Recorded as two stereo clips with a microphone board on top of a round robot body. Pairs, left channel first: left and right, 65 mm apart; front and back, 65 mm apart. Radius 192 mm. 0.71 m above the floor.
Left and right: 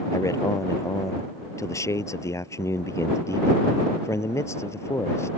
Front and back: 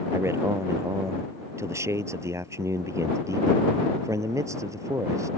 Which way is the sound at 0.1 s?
130° left.